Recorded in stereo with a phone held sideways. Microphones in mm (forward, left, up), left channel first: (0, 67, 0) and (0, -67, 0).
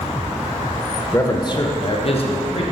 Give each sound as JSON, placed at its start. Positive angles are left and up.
{"t": 1.1, "sound": "a man speaking", "side_deg": 25, "distance_m": 0.6}